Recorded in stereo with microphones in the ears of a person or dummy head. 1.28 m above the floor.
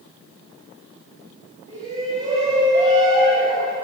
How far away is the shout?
About 7 m.